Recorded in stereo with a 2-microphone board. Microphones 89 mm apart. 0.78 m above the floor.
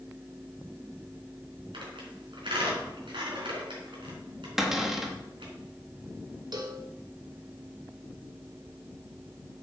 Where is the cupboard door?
5° right (ahead or behind), 1.5 m.